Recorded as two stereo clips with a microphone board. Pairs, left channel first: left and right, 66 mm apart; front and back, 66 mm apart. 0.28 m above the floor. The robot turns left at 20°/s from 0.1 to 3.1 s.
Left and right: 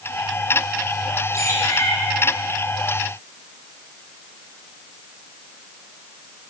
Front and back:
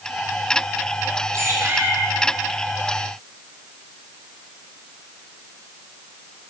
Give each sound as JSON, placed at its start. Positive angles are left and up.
{"t": 1.3, "sound": "a bird", "azimuth_deg": 130, "distance_m": 3.0}